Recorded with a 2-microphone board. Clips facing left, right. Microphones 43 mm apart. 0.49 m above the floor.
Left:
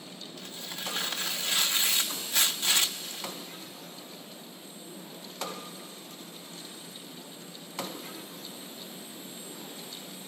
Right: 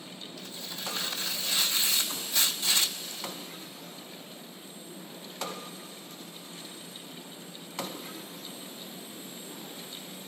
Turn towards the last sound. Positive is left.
turn(degrees=50)  # may be behind; listen again after turning